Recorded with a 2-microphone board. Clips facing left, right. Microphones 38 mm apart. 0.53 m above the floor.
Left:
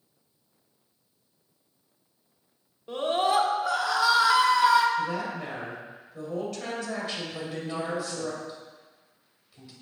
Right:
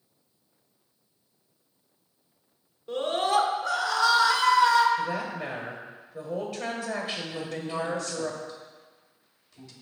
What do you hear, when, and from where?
2.9 s a scream: 15° left (ahead or behind), 1.1 m
5.0 s a woman speaking: 15° right (ahead or behind), 1.9 m
7.3 s a woman speaking: 15° left (ahead or behind), 2.0 m